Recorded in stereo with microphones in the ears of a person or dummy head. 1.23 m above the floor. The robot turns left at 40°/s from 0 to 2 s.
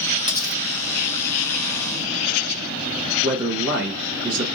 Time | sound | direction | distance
0.3 | cutlery clinking | 25° right (ahead or behind) | 0.9 m
3.2 | a man speaking | 60° right (ahead or behind) | 1.4 m